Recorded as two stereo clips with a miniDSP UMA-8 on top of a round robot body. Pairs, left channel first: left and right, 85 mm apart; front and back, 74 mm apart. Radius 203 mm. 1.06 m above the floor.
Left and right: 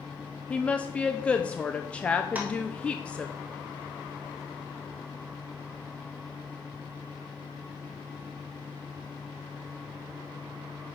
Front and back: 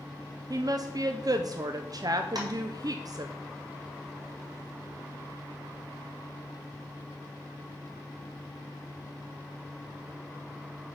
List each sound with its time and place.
0.5 s a woman speaking: 165° left, 0.7 m
2.4 s tapping: 160° right, 1.5 m